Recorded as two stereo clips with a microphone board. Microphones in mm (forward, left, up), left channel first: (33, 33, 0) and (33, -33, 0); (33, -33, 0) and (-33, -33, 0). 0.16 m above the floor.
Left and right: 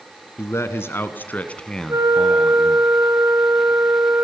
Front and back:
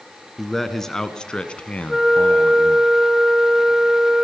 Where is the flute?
95° right, 2.0 m.